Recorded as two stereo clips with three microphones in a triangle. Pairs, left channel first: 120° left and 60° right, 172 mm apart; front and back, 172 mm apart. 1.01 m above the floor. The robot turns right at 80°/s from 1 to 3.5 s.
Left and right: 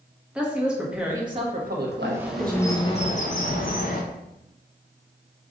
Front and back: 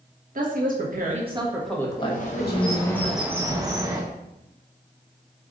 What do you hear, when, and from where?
0.3 s a woman speaking: 145° right, 1.1 m; by 3.0 s 15° left, 1.1 m
2.0 s a bird: straight ahead, 0.7 m; by 4.0 s 120° left, 0.7 m